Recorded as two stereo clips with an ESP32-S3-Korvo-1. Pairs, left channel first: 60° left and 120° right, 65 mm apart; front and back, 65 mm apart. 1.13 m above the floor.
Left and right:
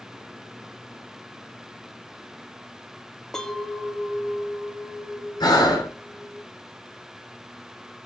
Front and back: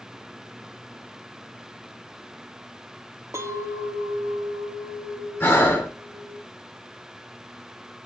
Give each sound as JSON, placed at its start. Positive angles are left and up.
{"t": 3.3, "sound": "a clink", "azimuth_deg": 140, "distance_m": 1.0}
{"t": 5.4, "sound": "breathing", "azimuth_deg": 60, "distance_m": 2.5}